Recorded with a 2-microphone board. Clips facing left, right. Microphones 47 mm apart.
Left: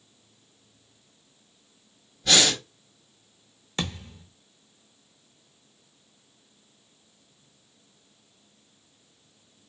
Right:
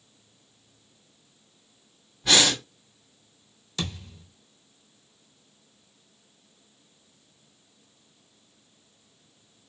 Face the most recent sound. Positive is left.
turn(degrees=35)  # may be behind; listen again after turning